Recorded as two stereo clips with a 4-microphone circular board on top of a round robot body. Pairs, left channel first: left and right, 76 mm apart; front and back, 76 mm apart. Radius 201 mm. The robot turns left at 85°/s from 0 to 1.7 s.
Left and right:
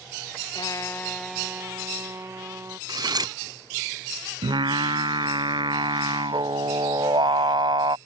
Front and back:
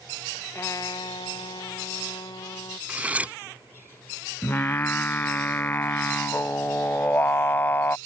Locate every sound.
0.6 s a trumpet: 60° left; by 2.8 s 35° right
2.9 s cutlery clinking: 110° right
4.4 s singing: 70° right